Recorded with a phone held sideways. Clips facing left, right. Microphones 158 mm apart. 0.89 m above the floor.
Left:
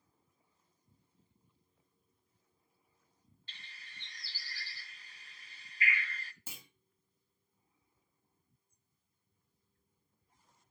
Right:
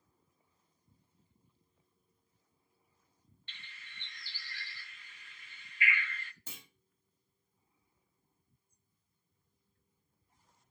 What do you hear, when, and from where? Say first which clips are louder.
3.5 s a bird: right 1 dB; 35° left (ahead or behind), 0.6 m
6.5 s a clunk: right 1 dB; 10° left (ahead or behind), 1.9 m